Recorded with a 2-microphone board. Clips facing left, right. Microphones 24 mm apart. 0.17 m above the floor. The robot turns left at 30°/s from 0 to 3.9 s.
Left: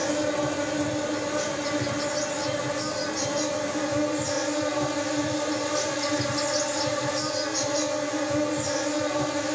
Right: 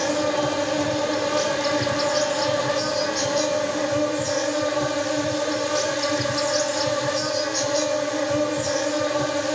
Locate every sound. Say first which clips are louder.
0.0 s an insect: right 4 dB; 40° right, 0.8 m; by 9.6 s 155° right, 0.8 m